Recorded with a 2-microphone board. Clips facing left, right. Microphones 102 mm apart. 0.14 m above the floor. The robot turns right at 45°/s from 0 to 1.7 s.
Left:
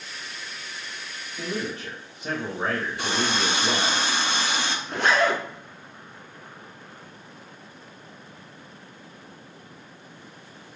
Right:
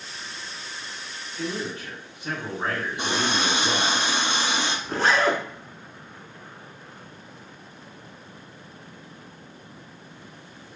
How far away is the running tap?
About 0.7 m.